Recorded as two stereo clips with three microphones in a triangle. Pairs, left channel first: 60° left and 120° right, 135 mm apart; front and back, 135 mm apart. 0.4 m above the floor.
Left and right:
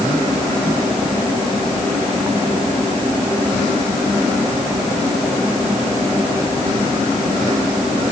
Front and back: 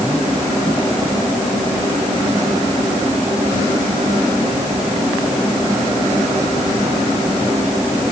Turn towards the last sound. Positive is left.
No sound to turn to.